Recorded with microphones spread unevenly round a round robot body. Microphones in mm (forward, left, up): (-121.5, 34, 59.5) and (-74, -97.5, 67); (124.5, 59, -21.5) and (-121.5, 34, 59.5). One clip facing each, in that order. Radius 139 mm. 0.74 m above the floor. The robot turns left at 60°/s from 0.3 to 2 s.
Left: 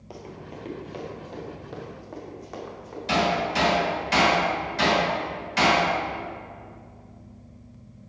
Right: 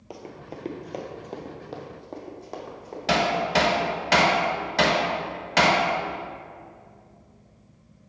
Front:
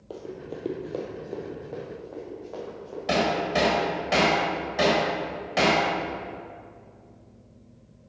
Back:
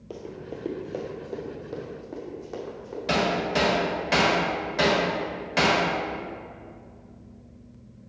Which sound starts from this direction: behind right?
Running footsteps, at 0.1 s.